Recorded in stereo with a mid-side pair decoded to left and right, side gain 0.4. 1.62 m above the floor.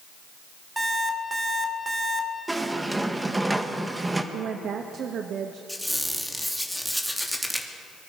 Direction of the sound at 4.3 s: 65° right.